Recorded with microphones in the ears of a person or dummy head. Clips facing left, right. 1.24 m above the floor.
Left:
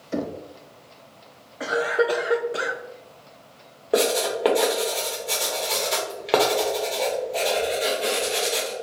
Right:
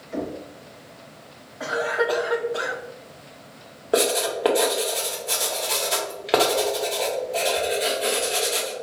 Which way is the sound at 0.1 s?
60° left (ahead or behind).